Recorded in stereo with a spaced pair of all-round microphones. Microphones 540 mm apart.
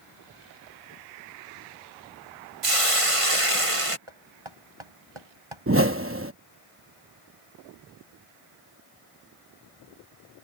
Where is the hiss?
75° right (ahead or behind).